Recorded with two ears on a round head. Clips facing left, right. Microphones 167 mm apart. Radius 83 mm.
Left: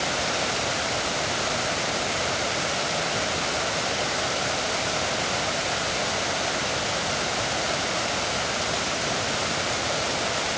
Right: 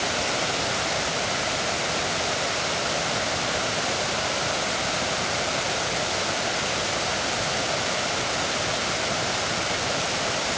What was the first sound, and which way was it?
Only background noise.